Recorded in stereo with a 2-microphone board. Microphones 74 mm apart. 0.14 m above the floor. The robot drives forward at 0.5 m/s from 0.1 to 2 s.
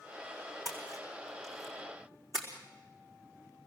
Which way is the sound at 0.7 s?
50° right (ahead or behind).